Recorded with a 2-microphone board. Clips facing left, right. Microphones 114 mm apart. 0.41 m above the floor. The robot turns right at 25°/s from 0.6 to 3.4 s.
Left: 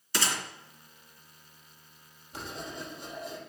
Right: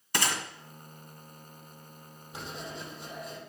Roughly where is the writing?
Centre.